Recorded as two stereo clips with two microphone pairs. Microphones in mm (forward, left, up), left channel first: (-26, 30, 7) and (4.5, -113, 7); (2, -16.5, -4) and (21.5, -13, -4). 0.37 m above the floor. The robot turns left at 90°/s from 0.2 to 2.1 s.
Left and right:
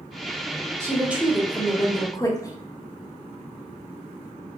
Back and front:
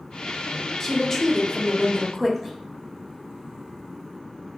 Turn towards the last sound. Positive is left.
turn(degrees=130)